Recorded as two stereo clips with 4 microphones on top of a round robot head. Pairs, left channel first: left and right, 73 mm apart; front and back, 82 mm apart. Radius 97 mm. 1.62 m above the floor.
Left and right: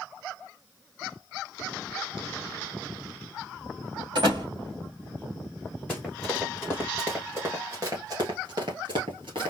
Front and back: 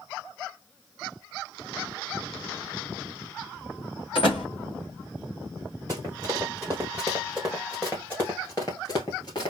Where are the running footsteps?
160° left, 1.7 m; by 9.5 s 55° right, 2 m.